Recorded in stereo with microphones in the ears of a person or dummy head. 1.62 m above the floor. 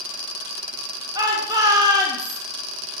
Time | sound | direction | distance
1.1 | a shout | 15° right (ahead or behind) | 1.6 m